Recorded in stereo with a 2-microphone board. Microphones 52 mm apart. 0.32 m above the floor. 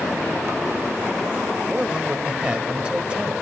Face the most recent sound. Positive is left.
turn(degrees=-20)  # may be behind; listen again after turning